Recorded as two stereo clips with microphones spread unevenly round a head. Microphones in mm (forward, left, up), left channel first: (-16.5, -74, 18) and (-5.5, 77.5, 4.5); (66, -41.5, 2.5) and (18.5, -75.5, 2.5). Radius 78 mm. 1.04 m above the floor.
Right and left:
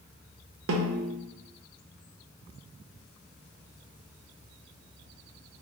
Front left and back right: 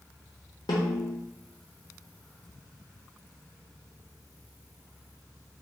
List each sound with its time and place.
0.7 s a snare drum: 75° left, 0.6 m